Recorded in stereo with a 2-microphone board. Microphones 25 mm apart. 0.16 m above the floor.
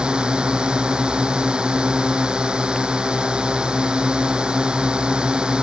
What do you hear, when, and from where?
0.0 s a drone: 40° right (ahead or behind)